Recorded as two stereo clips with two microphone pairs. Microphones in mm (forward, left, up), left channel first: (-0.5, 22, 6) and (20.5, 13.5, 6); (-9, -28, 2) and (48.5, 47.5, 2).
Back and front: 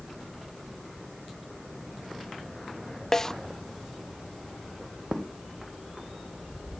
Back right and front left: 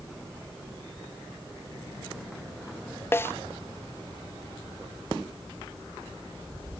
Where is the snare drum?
170° right, 0.5 m.